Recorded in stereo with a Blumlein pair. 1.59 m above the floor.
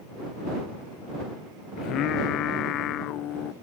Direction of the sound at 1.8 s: 35° left.